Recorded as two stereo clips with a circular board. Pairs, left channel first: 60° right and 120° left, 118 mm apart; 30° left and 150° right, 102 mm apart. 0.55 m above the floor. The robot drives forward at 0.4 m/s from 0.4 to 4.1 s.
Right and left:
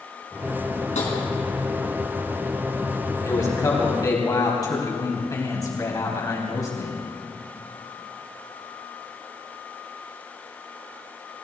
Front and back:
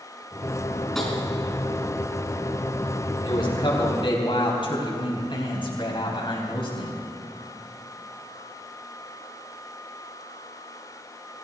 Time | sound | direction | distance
0.9 | tapping | 55° right | 4 m
3.2 | a man speaking | straight ahead | 4.5 m